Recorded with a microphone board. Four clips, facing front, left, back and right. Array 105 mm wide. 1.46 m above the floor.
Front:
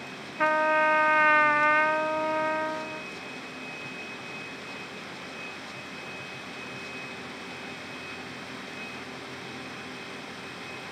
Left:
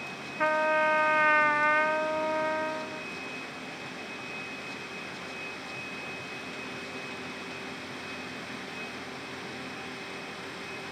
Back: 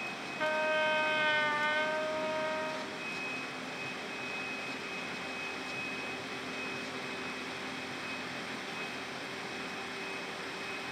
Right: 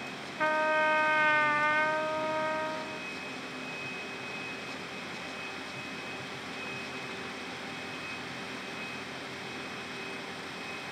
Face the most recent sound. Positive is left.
turn(degrees=15)